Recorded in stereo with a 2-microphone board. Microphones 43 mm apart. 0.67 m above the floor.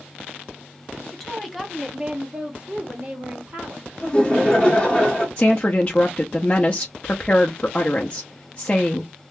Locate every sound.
1.1 s a woman speaking: 5° left (ahead or behind), 1.2 m; by 3.9 s 45° right (ahead or behind), 1.6 m
4.0 s laughter: 25° left (ahead or behind), 1.5 m
5.4 s a woman speaking: 30° left (ahead or behind), 0.6 m